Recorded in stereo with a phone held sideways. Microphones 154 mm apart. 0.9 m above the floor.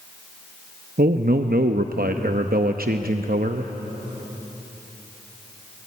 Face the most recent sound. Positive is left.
turn(degrees=-70)  # may be behind; listen again after turning